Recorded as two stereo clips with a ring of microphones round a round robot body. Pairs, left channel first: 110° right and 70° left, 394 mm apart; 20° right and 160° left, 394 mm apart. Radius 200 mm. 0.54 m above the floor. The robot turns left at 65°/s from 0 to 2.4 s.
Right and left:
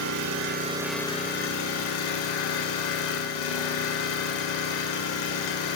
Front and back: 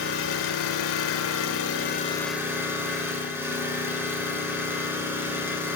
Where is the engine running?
35° left, 1.6 m; by 5.8 s 120° right, 1.6 m.